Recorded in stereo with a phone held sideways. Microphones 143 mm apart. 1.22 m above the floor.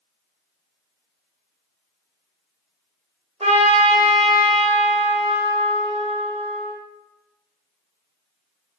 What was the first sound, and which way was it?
A trumpet, 50° right (ahead or behind).